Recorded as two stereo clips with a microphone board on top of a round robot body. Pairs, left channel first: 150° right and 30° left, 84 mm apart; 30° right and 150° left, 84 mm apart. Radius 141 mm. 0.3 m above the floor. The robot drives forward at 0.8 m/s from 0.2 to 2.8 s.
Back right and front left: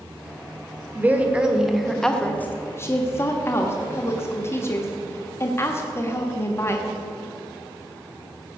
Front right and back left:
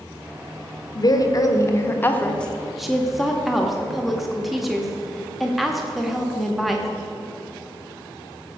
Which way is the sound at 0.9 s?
30° right.